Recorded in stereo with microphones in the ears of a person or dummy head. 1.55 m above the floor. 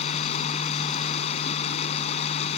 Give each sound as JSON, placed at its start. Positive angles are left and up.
{"t": 0.0, "sound": "running water", "side_deg": 35}